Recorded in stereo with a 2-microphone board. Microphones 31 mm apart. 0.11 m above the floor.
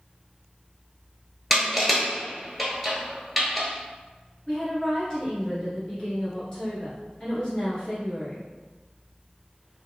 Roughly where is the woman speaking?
Left.